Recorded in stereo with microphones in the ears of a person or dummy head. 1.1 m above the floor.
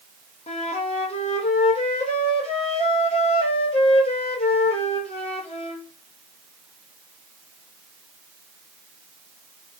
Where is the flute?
30° left (ahead or behind), 0.7 m.